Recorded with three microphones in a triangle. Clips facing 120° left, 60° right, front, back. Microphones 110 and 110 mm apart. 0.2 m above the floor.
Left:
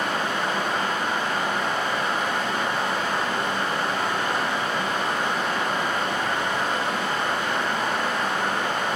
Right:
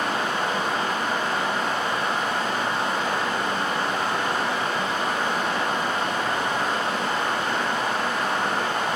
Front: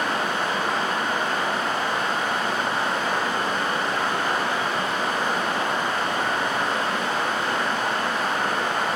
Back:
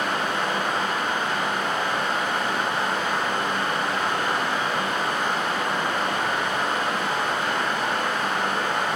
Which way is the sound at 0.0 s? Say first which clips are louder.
Right 1 dB, even; 35° right.